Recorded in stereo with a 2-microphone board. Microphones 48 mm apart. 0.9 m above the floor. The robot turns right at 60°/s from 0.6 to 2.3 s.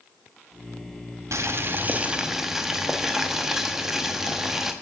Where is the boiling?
70° right, 0.8 m; by 4.7 s 10° right, 0.8 m.